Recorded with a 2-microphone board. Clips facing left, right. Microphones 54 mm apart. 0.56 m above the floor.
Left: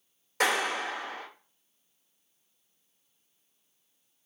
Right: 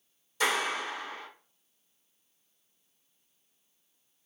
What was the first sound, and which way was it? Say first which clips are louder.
A clap: left 2 dB; 65° left (ahead or behind).